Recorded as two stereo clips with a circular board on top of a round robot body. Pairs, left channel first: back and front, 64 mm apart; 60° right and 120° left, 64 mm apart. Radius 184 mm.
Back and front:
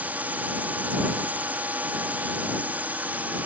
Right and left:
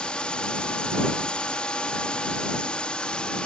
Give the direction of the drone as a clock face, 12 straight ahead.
12 o'clock.